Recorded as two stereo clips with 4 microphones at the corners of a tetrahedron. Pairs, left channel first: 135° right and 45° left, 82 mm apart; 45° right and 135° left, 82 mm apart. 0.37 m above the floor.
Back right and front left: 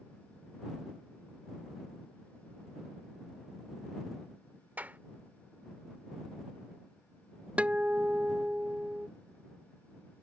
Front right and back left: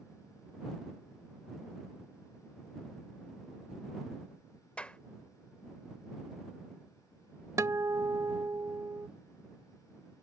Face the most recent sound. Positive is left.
turn(degrees=115)